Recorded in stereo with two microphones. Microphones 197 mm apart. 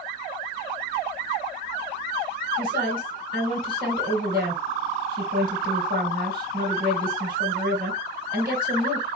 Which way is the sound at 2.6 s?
50° right (ahead or behind).